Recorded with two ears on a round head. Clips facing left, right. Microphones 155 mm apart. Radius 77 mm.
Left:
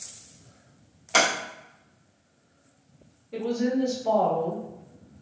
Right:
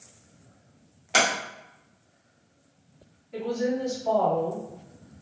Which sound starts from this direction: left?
A woman speaking, at 3.3 s.